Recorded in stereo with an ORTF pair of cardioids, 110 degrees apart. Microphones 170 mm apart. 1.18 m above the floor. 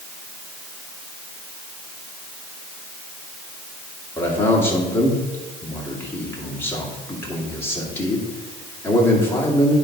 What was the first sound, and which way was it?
A man speaking, 15° left.